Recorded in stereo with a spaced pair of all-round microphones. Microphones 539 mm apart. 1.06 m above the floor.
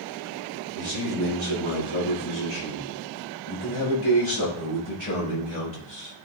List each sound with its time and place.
0.8 s a man speaking: 60° left (ahead or behind), 4 m; by 6.2 s 20° left (ahead or behind), 1.9 m